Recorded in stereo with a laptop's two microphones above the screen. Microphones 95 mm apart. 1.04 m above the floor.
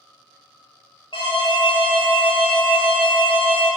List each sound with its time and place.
1.1 s an alarm: 65° left (ahead or behind), 1.5 m